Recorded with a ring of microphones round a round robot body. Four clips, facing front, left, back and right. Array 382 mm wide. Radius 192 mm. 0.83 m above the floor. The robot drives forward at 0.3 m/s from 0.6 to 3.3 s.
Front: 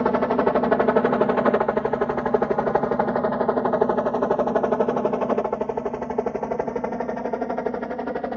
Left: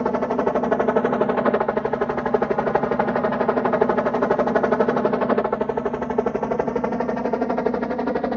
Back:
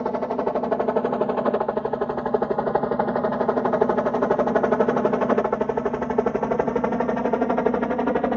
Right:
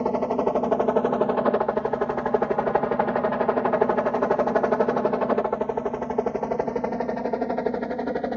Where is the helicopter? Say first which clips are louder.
Left 2 dB, front 4 dB; 30° left; by 8.4 s 145° left.